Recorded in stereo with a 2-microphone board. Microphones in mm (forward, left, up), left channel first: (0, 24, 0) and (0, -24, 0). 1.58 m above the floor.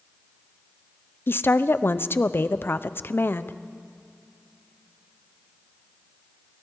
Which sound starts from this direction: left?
A woman speaking, at 1.3 s.